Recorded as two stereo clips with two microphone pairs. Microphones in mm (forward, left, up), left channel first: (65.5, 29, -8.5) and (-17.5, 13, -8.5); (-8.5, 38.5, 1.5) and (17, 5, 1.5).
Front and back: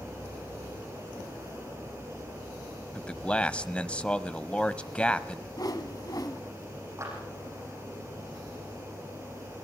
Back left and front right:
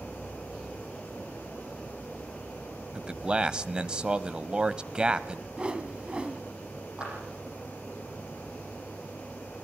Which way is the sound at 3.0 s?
35° right.